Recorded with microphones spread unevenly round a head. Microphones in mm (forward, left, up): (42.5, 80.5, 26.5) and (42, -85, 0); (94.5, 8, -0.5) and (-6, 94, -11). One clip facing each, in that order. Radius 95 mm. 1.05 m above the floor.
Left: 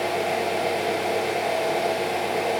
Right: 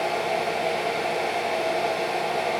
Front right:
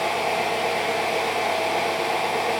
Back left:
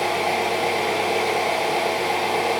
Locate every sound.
0.0 s an engine running: 110° left, 6 m